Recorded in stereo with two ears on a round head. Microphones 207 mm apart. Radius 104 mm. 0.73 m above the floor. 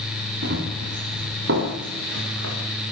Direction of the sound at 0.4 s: 50° right (ahead or behind).